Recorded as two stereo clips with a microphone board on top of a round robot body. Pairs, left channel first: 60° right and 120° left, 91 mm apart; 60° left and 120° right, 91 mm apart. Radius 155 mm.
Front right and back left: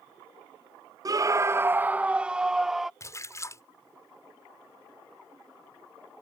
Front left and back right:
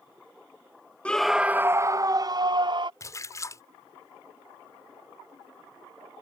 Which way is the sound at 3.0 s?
Straight ahead.